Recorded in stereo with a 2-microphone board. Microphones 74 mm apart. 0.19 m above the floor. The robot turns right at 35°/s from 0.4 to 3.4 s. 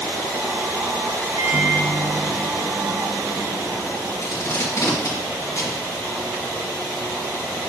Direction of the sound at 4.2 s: 45° left (ahead or behind).